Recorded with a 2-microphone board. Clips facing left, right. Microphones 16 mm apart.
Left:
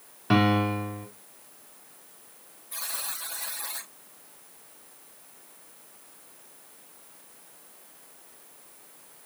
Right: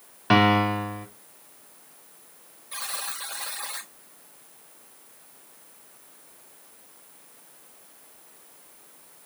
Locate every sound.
0.3 s a piano: 35° right (ahead or behind), 1.8 m
2.7 s a buzzer: 40° right (ahead or behind), 4.5 m